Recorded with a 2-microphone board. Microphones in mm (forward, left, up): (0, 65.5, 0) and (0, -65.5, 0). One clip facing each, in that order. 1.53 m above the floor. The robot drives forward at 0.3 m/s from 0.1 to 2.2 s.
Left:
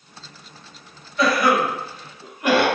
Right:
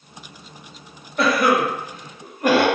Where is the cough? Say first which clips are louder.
Right 1 dB; 55° right (ahead or behind), 0.7 m; by 2.7 s 45° right (ahead or behind), 0.8 m.